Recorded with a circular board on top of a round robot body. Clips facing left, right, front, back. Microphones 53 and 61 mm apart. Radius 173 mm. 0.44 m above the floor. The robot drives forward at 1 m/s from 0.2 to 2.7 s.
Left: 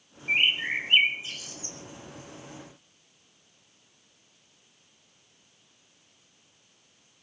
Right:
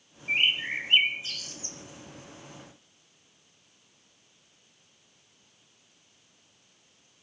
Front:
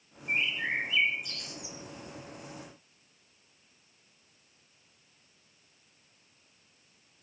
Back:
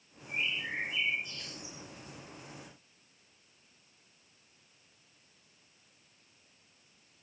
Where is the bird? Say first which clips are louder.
Left 2 dB, front 5 dB; 15° left, 4 m; by 1.8 s 25° left, 2.5 m.